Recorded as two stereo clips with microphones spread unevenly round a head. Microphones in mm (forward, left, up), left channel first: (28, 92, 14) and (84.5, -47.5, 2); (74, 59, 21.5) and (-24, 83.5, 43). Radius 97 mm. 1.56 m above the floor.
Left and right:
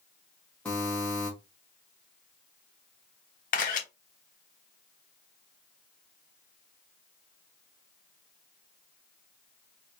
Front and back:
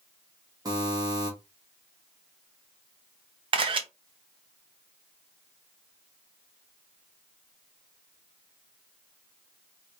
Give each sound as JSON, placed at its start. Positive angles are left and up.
{"t": 0.7, "sound": "a buzzer", "azimuth_deg": -170, "distance_m": 1.1}
{"t": 3.5, "sound": "a camera shutter", "azimuth_deg": 155, "distance_m": 0.6}